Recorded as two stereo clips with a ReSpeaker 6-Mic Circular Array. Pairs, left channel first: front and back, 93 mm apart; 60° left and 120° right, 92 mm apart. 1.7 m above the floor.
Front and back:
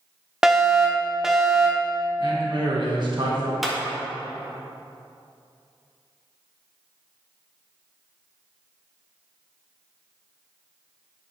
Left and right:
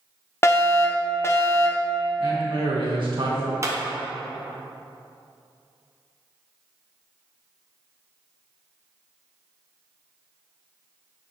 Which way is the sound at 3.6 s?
90° right.